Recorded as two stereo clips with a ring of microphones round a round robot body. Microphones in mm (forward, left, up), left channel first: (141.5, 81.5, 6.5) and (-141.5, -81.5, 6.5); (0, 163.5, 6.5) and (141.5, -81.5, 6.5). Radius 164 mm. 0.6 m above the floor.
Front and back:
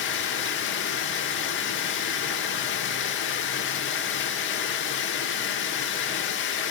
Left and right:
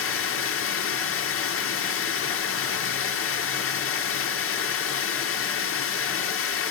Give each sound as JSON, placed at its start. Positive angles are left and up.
{"t": 0.0, "sound": "running water", "azimuth_deg": 80, "distance_m": 1.3}